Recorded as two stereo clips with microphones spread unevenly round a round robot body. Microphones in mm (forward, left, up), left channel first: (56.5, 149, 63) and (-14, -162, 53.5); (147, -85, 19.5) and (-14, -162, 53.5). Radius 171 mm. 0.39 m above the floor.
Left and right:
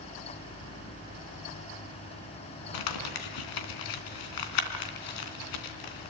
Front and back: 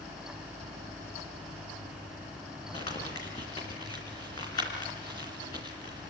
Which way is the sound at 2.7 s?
100° left.